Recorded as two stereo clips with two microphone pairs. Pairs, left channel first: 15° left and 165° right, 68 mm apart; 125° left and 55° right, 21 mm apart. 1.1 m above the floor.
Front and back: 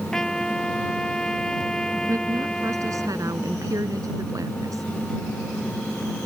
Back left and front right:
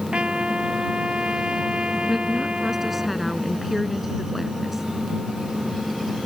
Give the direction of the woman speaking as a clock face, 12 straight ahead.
4 o'clock.